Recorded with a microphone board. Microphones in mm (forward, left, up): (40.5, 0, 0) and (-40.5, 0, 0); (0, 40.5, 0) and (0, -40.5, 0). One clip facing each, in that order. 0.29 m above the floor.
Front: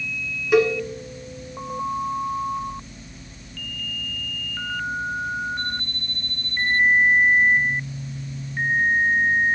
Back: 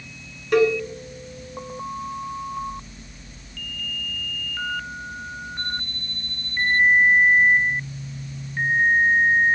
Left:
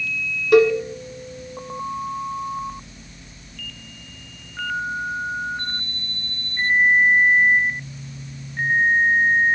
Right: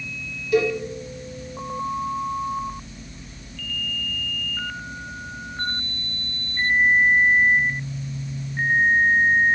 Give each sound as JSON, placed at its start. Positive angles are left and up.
{"t": 0.5, "sound": "a cowbell", "azimuth_deg": 85, "distance_m": 1.2}